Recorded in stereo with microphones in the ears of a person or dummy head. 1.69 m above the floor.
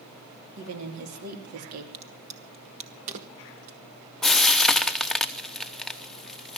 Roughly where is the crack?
Right.